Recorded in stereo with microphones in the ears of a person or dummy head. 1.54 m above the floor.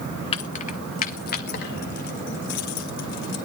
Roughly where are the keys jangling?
Left.